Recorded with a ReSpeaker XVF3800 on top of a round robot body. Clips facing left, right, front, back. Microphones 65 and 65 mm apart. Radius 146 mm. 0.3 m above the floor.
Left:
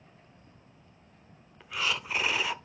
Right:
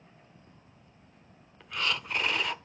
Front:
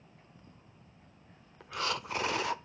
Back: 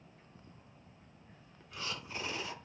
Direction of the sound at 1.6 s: 5° left.